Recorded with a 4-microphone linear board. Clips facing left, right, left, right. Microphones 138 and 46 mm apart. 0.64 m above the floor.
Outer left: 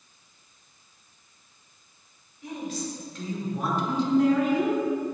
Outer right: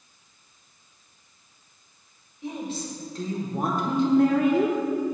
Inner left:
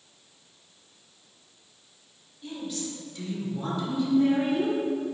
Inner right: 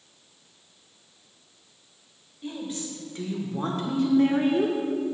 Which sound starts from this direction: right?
A woman speaking, at 2.4 s.